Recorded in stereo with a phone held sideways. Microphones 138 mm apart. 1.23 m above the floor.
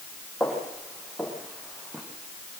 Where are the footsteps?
Centre (ahead or behind), 5 m; by 2.0 s 5° right (ahead or behind), 6 m.